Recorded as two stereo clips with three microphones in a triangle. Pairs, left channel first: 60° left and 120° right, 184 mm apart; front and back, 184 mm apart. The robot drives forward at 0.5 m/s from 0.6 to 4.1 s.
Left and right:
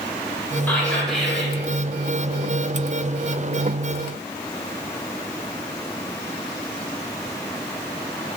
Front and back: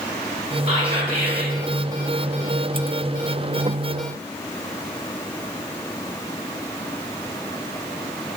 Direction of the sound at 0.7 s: 140° left.